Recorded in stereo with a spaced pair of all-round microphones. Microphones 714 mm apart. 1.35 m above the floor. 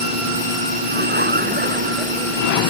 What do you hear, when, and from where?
0.9 s laughter: 15° right (ahead or behind); by 2.7 s 10° right (ahead or behind)